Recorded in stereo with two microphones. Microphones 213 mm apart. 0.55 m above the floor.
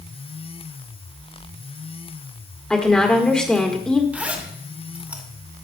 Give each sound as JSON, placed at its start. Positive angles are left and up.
{"t": 2.7, "sound": "a woman speaking", "side_deg": 5, "distance_m": 1.6}
{"t": 4.1, "sound": "a zipper", "side_deg": -10, "distance_m": 2.0}